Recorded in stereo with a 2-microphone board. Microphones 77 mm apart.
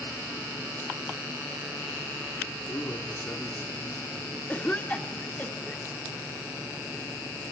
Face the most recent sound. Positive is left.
turn(degrees=20)  # may be behind; listen again after turning